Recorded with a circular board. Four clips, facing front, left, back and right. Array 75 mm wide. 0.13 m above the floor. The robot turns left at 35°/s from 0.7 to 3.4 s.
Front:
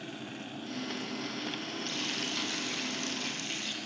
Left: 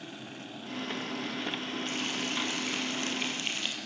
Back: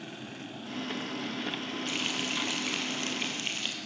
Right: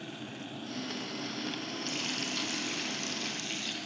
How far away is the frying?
About 4.5 m.